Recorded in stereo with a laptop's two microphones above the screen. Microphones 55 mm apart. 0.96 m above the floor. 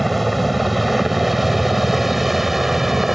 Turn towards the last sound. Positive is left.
turn(degrees=-5)  # may be behind; listen again after turning